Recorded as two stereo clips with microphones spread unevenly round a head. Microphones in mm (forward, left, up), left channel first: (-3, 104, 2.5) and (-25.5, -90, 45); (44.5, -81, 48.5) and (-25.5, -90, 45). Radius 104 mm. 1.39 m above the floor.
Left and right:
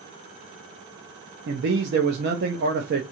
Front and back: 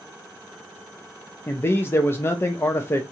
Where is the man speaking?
55° right, 0.6 m.